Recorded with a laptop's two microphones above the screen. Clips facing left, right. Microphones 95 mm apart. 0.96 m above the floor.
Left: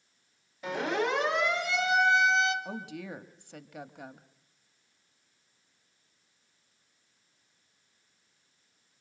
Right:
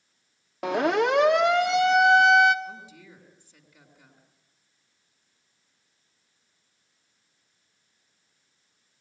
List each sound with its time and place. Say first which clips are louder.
0.6 s a siren: right 7 dB; 70° right (ahead or behind), 2.5 m; by 2.5 s 60° right (ahead or behind), 1.4 m
2.6 s a woman speaking: left 4 dB; 70° left (ahead or behind), 1.2 m